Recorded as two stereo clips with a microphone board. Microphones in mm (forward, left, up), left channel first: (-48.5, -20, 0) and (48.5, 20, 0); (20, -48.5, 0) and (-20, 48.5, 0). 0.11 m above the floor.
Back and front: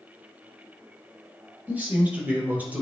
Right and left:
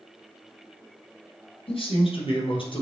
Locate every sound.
1.7 s a man speaking: 50° right, 3 m